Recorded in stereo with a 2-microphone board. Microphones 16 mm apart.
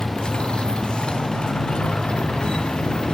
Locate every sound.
0.0 s a motorcycle: 75° left (ahead or behind); by 3.1 s 80° left